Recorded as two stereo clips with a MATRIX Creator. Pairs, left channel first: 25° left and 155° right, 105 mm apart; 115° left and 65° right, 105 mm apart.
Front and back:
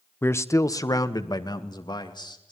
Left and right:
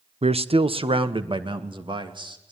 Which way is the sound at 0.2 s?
50° right.